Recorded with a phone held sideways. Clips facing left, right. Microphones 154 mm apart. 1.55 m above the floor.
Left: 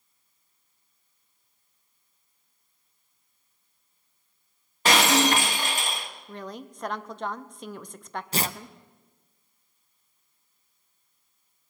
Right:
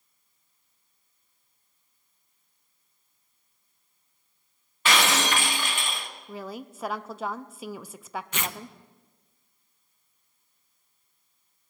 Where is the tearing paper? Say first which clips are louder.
Left 7 dB; 35° left (ahead or behind), 0.5 m.